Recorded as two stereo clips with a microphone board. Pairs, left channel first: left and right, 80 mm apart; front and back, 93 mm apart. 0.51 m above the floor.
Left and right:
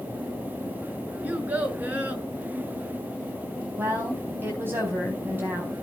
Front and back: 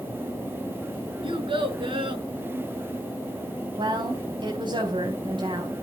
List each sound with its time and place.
1.2 s a child speaking: 160° right, 4 m
3.8 s a woman speaking: 150° right, 4 m